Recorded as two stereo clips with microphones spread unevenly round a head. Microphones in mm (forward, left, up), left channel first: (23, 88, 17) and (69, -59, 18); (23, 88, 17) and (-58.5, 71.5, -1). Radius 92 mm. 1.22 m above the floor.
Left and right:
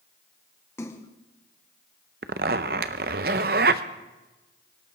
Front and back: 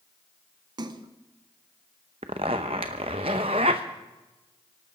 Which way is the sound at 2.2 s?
115° right.